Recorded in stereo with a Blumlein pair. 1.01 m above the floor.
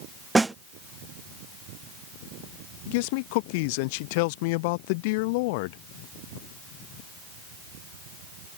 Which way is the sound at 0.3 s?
10° right.